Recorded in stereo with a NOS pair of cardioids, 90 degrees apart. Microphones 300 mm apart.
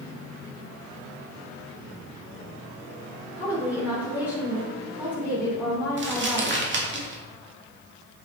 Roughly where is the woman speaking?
Ahead.